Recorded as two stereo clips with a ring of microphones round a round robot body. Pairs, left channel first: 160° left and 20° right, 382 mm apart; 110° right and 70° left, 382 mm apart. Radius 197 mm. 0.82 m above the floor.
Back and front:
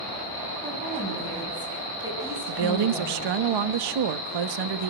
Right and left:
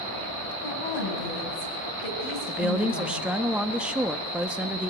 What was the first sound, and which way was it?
A woman speaking, 95° right.